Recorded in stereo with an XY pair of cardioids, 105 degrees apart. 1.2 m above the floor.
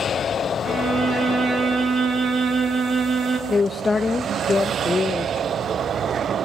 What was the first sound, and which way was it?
A violin, 50° right.